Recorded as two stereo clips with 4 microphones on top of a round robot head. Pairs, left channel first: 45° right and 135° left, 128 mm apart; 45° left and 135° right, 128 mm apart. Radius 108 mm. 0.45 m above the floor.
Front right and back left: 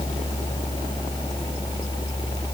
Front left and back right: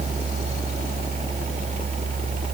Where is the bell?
I don't hear a bell.